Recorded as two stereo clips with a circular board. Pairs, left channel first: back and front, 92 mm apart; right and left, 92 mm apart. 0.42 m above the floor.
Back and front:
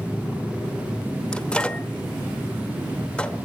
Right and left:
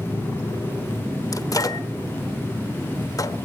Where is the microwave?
110° right, 1.0 m.